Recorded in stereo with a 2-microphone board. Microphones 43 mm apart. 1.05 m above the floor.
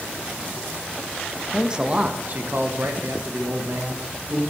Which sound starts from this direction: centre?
A man speaking, at 1.5 s.